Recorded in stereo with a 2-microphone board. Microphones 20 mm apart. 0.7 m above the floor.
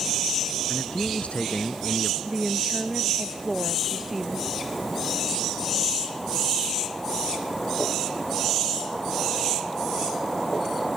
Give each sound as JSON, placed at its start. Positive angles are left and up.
{"t": 0.7, "sound": "a man speaking", "side_deg": 85}
{"t": 2.2, "sound": "a woman speaking", "side_deg": -20}